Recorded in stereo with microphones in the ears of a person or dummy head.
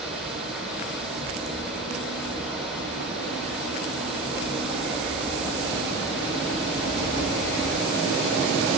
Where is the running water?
Centre (ahead or behind), 3 m.